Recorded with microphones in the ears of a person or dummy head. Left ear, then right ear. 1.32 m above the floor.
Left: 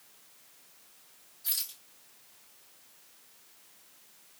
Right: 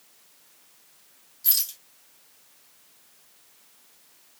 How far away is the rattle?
About 1.1 m.